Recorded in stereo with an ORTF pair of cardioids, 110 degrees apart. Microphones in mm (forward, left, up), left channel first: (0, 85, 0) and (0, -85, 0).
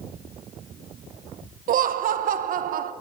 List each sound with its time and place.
1.7 s laughter: 55° right, 1.3 m